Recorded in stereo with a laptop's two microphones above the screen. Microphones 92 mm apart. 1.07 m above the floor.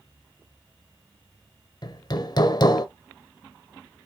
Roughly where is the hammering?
Left.